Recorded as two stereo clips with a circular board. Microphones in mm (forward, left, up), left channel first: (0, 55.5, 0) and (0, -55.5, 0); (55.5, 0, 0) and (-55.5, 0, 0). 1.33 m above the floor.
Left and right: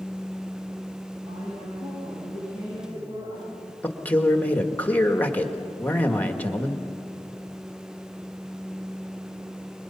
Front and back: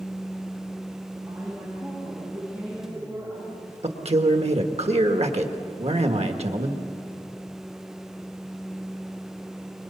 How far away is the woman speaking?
About 7 m.